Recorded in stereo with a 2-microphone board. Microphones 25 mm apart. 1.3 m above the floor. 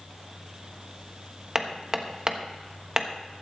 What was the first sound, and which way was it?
Hammering, 35° right (ahead or behind).